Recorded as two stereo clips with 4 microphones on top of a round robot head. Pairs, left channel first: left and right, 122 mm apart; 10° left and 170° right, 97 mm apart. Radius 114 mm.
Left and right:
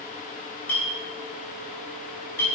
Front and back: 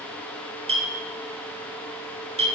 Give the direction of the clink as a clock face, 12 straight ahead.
6 o'clock.